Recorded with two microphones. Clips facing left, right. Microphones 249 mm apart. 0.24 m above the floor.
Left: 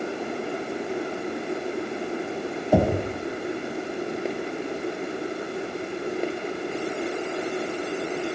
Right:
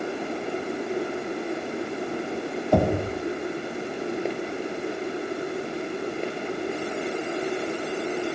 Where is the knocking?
5° left (ahead or behind), 6 m.